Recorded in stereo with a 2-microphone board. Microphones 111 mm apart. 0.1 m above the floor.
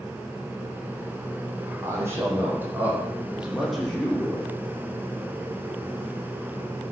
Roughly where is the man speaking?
Right.